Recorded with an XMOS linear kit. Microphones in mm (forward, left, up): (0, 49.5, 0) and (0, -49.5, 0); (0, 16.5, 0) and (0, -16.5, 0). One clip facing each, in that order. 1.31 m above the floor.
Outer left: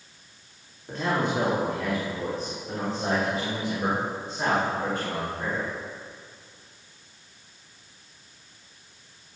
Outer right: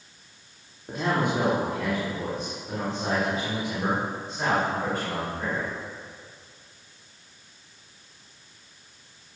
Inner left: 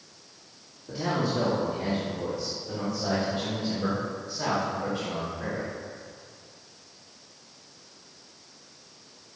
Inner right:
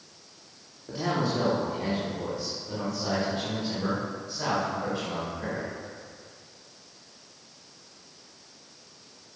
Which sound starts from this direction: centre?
A man speaking, at 0.9 s.